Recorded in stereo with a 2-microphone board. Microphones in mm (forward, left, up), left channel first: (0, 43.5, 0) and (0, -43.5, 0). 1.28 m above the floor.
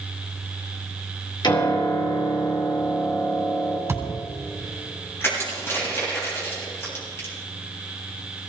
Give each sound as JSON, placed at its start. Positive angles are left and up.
{"t": 1.4, "sound": "a piano", "side_deg": 65, "distance_m": 4.0}
{"t": 3.9, "sound": "a thud", "side_deg": -25, "distance_m": 3.0}
{"t": 5.2, "sound": "crushing", "side_deg": 30, "distance_m": 8.0}